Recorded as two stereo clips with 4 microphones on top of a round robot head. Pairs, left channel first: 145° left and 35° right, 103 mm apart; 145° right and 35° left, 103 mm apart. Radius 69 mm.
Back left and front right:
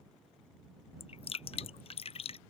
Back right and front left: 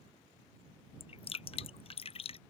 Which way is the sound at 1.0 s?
Straight behind.